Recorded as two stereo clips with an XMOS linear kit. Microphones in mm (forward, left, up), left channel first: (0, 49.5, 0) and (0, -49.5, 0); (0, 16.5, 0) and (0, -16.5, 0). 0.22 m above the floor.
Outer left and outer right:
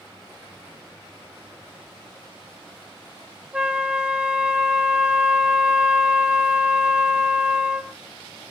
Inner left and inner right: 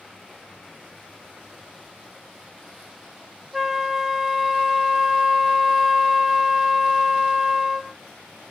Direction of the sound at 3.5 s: 10° right (ahead or behind).